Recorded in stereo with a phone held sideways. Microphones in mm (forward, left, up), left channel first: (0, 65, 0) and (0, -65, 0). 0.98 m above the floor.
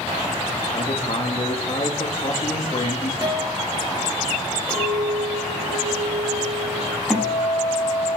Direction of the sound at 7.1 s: Centre (ahead or behind).